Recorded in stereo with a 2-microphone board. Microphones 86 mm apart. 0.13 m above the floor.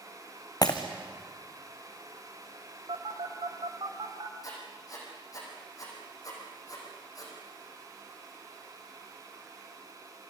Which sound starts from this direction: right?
A phone buzzing, at 2.9 s.